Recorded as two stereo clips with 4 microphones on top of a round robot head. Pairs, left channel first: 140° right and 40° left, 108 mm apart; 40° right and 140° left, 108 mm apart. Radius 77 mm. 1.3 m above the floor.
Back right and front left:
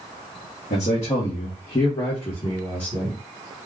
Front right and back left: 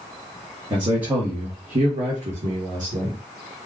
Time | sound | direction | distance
0.7 | a man speaking | 165° right | 1.2 m